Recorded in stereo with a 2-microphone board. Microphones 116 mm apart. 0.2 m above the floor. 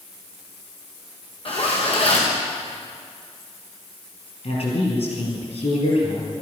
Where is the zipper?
55° left (ahead or behind), 3.5 m.